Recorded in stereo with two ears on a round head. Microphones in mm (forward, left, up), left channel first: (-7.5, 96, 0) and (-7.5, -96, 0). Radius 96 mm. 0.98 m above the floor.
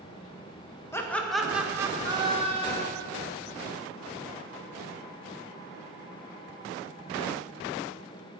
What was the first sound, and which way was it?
Laughter, 15° left (ahead or behind).